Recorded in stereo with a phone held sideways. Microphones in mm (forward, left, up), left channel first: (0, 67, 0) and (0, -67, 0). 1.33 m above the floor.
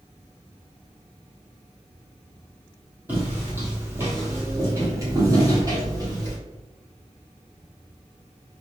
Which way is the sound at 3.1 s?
15° right (ahead or behind).